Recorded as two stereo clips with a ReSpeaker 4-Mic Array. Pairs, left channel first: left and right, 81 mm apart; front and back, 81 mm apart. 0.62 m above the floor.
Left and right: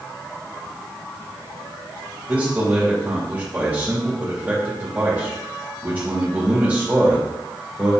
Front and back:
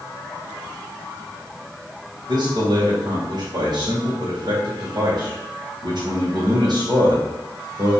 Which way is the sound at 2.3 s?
155° right.